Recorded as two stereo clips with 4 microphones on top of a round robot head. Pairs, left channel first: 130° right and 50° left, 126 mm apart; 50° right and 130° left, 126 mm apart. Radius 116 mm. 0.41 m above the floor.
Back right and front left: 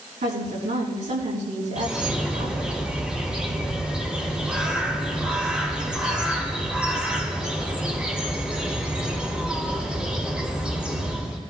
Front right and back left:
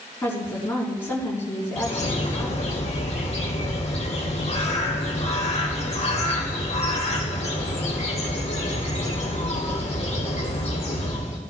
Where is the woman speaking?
25° left, 5 m.